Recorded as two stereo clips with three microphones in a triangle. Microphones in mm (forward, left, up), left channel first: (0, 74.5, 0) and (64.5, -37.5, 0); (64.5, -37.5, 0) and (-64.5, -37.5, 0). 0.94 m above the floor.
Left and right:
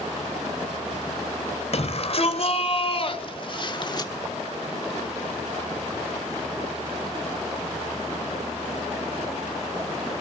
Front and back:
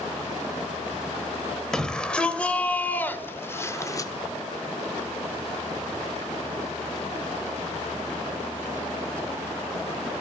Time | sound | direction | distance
1.7 | a shout | 85° left | 3.5 m